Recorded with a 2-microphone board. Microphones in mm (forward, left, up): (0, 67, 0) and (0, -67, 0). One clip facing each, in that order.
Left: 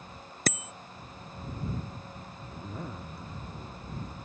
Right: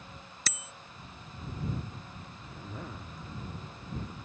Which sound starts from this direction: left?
A bicycle bell, at 0.5 s.